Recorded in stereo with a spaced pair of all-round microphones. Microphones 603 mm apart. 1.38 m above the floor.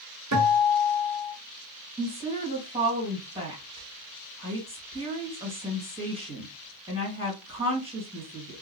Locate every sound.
0.3 s a guitar: 30° right (ahead or behind), 1.1 m
2.0 s a woman speaking: 10° right (ahead or behind), 1.7 m